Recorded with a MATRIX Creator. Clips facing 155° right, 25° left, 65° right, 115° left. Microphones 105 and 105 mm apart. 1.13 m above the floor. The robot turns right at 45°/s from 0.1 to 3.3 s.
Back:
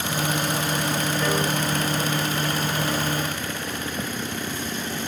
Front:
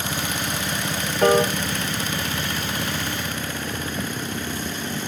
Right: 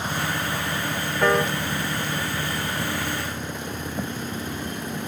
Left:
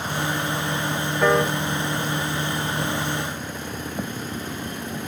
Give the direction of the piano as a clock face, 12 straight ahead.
11 o'clock.